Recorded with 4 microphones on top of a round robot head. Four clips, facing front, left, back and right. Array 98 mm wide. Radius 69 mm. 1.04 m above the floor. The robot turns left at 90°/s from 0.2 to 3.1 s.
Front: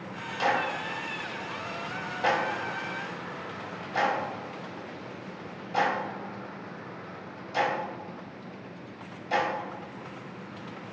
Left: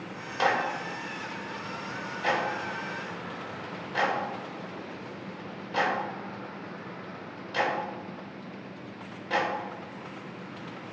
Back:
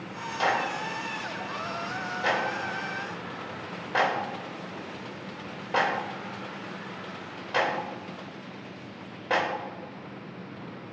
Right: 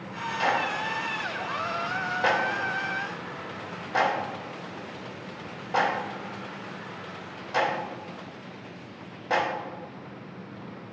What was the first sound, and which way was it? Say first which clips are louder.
A clap: even, even; 90° left.